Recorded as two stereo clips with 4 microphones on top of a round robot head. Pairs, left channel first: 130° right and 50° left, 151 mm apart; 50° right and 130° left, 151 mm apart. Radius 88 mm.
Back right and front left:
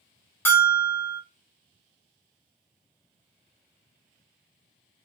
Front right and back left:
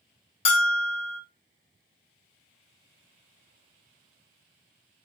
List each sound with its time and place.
0.5 s a bell: 65° right, 0.6 m